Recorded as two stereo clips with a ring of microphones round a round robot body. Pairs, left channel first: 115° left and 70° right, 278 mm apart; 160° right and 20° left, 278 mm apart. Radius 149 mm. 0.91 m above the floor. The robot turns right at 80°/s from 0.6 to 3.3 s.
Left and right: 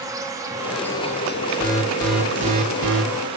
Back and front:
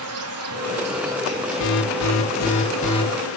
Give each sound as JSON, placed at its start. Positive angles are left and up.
{"t": 0.0, "sound": "an insect", "azimuth_deg": 10, "distance_m": 1.1}
{"t": 1.6, "sound": "an alarm", "azimuth_deg": 165, "distance_m": 1.4}